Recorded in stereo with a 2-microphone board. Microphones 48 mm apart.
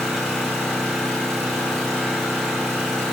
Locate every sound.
0.0 s an engine running: 5° left (ahead or behind), 1.9 m